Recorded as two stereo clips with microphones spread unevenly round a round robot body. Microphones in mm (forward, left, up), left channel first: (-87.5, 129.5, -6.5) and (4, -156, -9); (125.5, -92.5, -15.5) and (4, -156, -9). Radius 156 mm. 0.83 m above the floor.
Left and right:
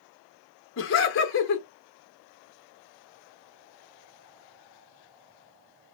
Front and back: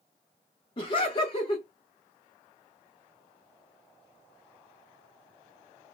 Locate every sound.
0.8 s laughter: 70° left, 0.6 m